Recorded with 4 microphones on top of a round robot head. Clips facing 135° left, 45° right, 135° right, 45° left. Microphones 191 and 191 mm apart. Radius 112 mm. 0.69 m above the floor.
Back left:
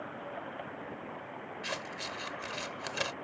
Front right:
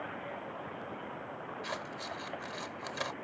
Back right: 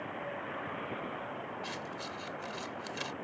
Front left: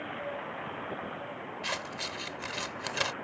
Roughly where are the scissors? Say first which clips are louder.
Back left 2 dB, front left 2 dB; left.